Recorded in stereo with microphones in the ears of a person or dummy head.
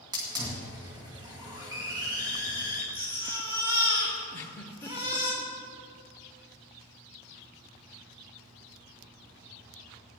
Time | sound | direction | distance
0.1 | a hiss | 15° right (ahead or behind) | 2.5 m
2.9 | a baby crying | 15° right (ahead or behind) | 3.5 m
4.3 | a giggle | 15° left (ahead or behind) | 1.4 m